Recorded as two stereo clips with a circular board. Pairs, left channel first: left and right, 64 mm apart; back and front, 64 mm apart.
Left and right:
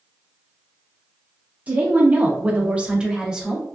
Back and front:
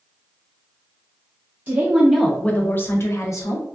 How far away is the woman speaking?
About 0.6 m.